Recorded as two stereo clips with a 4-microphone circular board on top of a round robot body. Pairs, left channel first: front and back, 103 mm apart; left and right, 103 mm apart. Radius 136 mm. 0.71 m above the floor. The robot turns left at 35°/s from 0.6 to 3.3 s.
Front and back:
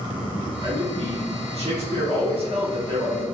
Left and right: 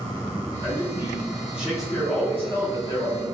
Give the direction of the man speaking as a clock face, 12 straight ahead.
5 o'clock.